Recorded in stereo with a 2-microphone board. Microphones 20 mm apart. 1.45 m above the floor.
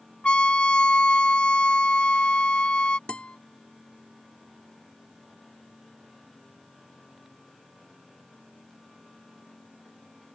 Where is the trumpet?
60° left (ahead or behind).